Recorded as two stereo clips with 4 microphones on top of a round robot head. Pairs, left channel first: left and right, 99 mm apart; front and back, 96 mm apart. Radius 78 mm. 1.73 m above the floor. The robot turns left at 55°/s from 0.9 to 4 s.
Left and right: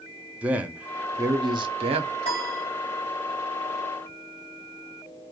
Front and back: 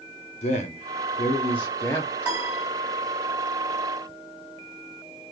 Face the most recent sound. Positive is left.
turn(degrees=30)